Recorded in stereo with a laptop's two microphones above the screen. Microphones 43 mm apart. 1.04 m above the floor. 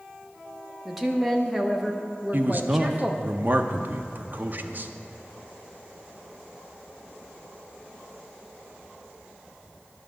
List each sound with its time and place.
0.8 s a woman speaking: 5° right (ahead or behind), 0.7 m
2.3 s a man speaking: 45° right (ahead or behind), 0.6 m